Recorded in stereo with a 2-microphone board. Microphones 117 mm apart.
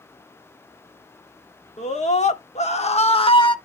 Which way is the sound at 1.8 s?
80° left.